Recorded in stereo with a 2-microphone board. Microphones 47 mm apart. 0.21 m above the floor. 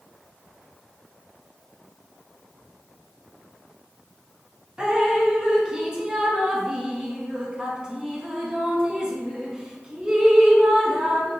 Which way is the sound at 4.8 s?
20° right (ahead or behind).